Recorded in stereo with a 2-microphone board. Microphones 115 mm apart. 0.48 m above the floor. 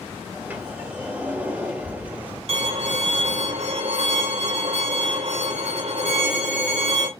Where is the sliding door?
15° right (ahead or behind), 1.5 m.